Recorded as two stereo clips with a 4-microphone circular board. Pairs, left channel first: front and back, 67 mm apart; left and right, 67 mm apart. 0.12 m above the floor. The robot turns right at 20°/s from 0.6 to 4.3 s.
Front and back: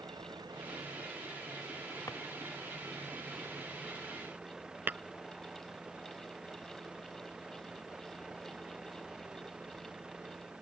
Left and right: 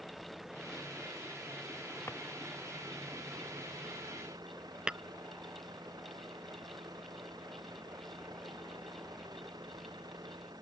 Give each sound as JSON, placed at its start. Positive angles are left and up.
{"t": 0.0, "sound": "a vehicle", "azimuth_deg": -175}
{"t": 2.1, "sound": "a drawer", "azimuth_deg": 40}
{"t": 4.9, "sound": "tapping", "azimuth_deg": -155}